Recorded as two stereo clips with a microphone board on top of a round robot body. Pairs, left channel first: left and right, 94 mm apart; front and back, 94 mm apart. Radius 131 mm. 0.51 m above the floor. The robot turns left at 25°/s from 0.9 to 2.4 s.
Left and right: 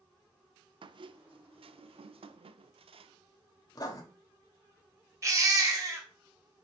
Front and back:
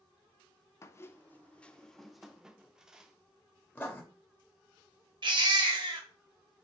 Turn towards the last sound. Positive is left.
turn(degrees=-145)